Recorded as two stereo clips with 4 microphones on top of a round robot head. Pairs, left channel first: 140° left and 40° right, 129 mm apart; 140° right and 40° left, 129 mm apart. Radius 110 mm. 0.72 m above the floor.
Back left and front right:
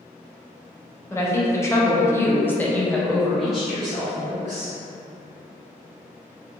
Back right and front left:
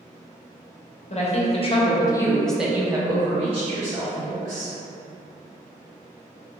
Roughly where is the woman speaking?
Behind right.